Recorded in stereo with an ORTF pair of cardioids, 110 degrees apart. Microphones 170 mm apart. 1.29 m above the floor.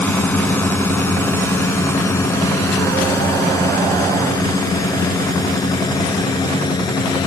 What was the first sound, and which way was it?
A drone, 10° left.